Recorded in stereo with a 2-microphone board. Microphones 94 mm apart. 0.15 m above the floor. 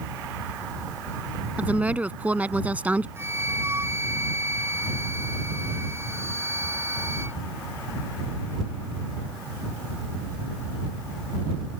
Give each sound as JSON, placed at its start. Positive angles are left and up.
{"t": 1.6, "sound": "a woman speaking", "side_deg": -15}
{"t": 3.2, "sound": "a flute", "side_deg": -30}